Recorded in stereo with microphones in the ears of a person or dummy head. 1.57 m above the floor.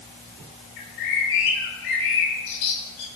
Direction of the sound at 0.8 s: 75° left (ahead or behind).